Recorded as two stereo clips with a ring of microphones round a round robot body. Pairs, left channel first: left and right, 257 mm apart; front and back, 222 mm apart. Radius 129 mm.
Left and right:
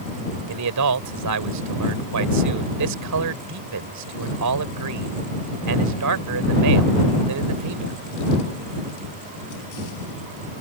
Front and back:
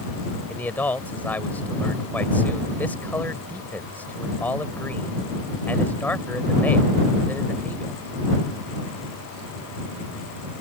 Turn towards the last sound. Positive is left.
turn(degrees=-85)